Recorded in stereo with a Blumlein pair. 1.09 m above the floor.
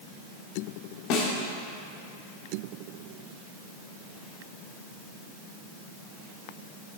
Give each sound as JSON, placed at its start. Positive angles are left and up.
{"t": 1.1, "sound": "a snare drum", "azimuth_deg": 40, "distance_m": 1.4}